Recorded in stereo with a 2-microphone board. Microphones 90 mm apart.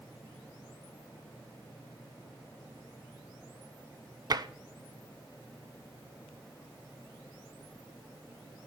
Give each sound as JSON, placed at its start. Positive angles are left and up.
{"t": 4.3, "sound": "tapping", "side_deg": -50, "distance_m": 0.7}